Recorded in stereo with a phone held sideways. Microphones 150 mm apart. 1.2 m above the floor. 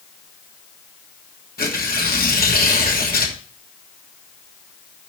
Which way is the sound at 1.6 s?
80° left.